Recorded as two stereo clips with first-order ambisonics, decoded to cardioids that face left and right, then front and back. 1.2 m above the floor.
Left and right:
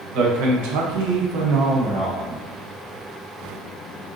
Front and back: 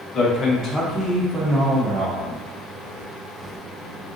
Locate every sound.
0.1 s a man speaking: 65° right, 0.8 m; by 2.4 s 155° right, 0.8 m